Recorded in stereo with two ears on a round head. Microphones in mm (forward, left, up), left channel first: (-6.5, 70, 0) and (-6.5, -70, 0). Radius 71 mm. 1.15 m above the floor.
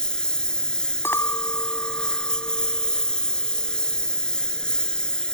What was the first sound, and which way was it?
A lawn mower, 5° left (ahead or behind).